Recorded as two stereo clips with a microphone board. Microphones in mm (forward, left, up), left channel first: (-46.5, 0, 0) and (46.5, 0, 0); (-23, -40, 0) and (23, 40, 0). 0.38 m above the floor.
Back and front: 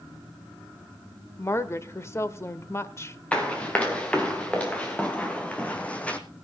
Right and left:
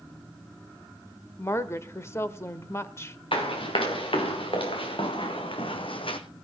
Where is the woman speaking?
150° right, 1.0 m.